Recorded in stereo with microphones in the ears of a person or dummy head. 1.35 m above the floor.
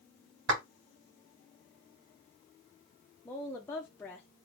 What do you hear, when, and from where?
0.5 s a clap: 70° right (ahead or behind), 2 m
3.2 s a woman speaking: 10° left (ahead or behind), 0.6 m